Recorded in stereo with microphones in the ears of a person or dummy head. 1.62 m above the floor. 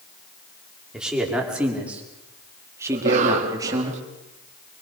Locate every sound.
0.9 s a man speaking: 5° right (ahead or behind), 5 m; by 3.9 s 20° right (ahead or behind), 3.5 m
2.9 s a cough: 40° right (ahead or behind), 3.5 m